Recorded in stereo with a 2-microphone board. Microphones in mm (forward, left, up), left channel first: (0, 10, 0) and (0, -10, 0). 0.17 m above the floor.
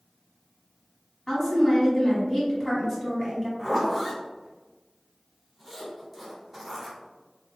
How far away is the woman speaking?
About 1.3 m.